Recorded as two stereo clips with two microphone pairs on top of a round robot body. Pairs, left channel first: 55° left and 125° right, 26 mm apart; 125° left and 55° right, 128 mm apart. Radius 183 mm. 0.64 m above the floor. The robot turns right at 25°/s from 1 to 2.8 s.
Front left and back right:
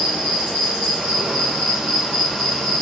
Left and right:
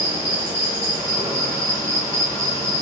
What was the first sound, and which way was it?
An insect, 70° right.